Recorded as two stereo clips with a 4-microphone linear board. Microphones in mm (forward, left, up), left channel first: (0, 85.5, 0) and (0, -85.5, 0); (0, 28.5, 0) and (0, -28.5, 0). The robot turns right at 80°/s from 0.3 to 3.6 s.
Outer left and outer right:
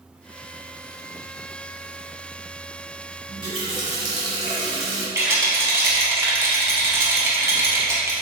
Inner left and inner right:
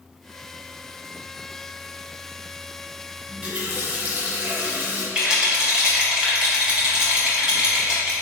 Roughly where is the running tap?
Centre.